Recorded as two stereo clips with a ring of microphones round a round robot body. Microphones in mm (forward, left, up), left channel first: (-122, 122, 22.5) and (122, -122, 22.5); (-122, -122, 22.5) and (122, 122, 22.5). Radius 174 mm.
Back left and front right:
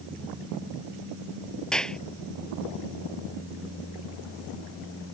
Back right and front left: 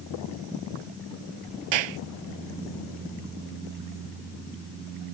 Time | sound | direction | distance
1.7 | a clap | 45° left | ?